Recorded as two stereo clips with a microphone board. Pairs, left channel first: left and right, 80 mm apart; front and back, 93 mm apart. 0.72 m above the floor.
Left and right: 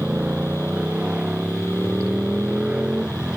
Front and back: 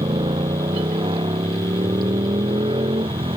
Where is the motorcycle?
165° right; by 3.4 s 170° right.